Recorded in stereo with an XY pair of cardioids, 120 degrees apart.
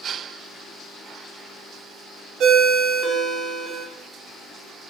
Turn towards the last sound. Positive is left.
turn(degrees=-70)